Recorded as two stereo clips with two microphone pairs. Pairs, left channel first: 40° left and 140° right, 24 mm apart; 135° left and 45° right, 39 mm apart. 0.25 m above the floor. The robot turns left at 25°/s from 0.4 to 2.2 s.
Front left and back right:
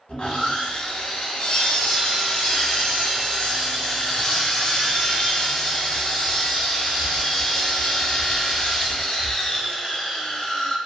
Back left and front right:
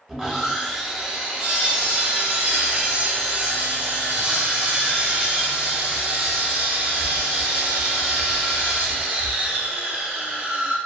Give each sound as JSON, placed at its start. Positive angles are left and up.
{"t": 0.1, "sound": "sawing", "azimuth_deg": 45, "distance_m": 0.7}